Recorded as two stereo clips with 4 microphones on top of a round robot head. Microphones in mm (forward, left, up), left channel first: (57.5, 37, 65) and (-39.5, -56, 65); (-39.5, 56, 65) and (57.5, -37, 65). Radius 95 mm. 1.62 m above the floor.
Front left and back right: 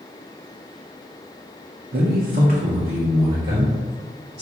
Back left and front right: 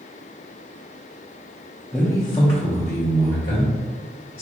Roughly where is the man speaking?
Behind right.